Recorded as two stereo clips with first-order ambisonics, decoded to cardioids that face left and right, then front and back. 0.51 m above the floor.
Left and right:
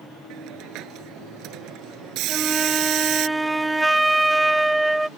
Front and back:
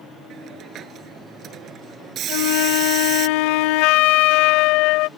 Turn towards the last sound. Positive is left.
turn(degrees=-5)